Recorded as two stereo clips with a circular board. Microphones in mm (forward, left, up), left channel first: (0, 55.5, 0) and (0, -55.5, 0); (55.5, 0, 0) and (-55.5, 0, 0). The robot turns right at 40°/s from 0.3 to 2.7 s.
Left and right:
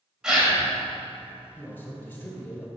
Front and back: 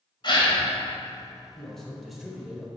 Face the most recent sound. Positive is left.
turn(degrees=115)